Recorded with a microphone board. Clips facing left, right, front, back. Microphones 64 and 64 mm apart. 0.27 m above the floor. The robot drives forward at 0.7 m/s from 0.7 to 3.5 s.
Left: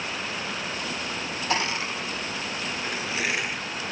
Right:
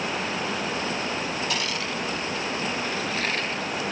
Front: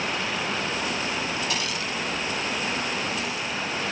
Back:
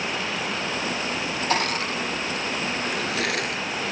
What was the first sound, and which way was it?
Crushing, 145° left.